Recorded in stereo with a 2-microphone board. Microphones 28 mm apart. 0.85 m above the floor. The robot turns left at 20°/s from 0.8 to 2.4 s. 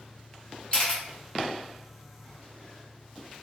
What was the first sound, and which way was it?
A camera shutter, 35° left (ahead or behind).